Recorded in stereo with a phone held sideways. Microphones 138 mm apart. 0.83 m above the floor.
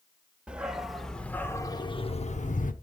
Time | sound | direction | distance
0.5 | a dog barking | 10° right (ahead or behind) | 1.3 m